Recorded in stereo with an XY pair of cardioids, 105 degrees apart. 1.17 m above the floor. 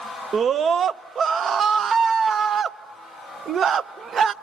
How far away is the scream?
About 0.6 m.